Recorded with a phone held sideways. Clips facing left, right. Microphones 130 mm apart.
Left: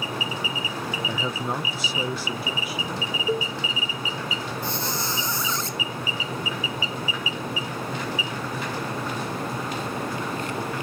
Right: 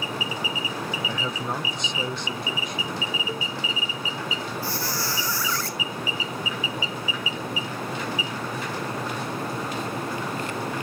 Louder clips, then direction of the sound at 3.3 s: Left 7 dB; 35° left (ahead or behind).